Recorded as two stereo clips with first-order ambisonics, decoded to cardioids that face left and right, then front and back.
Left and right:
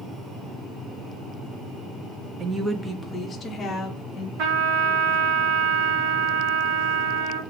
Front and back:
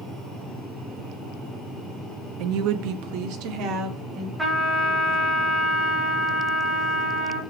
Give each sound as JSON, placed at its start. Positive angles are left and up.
{"t": 2.4, "sound": "a woman speaking", "azimuth_deg": -155, "distance_m": 0.5}
{"t": 4.4, "sound": "a trumpet", "azimuth_deg": -100, "distance_m": 1.4}